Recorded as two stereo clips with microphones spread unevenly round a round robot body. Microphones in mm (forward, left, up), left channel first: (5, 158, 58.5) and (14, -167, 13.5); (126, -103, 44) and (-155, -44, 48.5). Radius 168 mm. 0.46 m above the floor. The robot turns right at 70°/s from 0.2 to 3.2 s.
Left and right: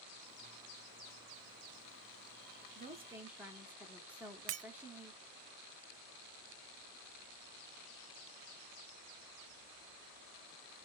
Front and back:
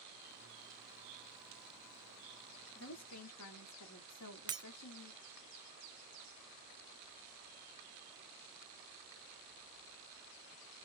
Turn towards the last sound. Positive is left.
turn(degrees=-115)